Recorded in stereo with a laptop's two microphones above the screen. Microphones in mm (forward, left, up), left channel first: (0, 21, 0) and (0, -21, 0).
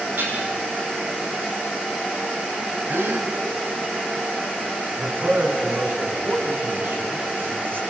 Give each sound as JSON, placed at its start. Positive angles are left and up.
{"t": 0.2, "sound": "dishes clattering", "side_deg": -55, "distance_m": 8.5}
{"t": 2.9, "sound": "a gasp", "side_deg": -80, "distance_m": 2.5}
{"t": 5.0, "sound": "a man speaking", "side_deg": -65, "distance_m": 3.5}